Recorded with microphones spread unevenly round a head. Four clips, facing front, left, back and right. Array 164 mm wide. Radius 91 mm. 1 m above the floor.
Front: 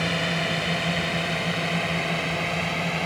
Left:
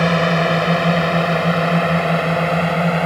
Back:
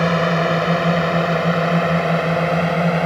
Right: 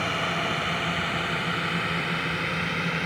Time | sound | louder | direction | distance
0.0 | a drone | left 12 dB, back 10 dB | 130° left | ?